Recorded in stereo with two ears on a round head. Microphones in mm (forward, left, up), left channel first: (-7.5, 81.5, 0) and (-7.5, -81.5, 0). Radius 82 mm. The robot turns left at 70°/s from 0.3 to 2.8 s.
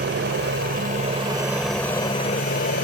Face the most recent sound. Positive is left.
turn(degrees=100)